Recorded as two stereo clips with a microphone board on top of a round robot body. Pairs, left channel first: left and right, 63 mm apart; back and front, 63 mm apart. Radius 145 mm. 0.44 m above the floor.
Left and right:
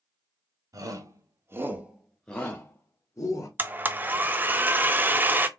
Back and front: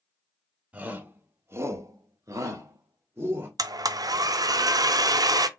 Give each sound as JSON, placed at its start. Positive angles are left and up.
{"t": 0.7, "sound": "a shout", "azimuth_deg": -70, "distance_m": 2.0}
{"t": 3.6, "sound": "a blender", "azimuth_deg": -25, "distance_m": 0.7}